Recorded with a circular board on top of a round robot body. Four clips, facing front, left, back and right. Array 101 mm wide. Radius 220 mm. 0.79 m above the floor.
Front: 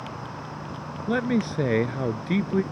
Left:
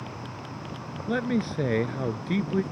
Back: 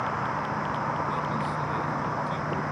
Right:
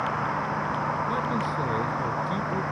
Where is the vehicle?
125° right; by 2.7 s 130° right.